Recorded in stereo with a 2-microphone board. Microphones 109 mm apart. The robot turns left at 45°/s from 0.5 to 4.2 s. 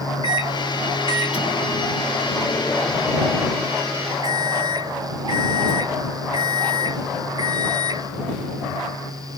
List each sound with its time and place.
0.2 s a microwave: 125° left; by 8.1 s 45° right